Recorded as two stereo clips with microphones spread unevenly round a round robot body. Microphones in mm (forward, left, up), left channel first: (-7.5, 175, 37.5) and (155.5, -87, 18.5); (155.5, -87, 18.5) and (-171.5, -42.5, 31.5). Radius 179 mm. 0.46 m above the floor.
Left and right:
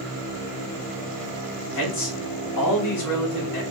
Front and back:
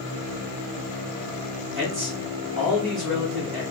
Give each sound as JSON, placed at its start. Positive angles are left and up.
{"t": 1.8, "sound": "a man speaking", "azimuth_deg": 100, "distance_m": 2.5}